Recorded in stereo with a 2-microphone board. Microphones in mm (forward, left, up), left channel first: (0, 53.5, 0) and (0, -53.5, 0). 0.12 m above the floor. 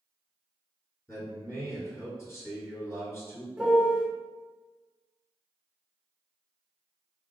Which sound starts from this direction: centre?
A piano, at 3.6 s.